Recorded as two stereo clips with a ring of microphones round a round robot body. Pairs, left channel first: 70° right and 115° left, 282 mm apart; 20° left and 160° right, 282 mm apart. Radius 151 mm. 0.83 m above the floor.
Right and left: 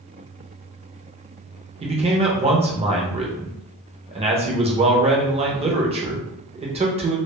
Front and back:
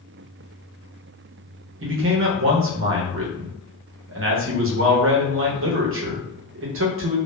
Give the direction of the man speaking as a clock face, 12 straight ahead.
6 o'clock.